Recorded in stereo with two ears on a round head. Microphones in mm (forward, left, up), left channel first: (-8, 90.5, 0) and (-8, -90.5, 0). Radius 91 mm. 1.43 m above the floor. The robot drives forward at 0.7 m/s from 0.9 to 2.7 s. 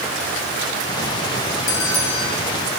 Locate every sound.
1.7 s a bell: 70° left (ahead or behind), 3.5 m; by 2.3 s 65° left (ahead or behind), 4 m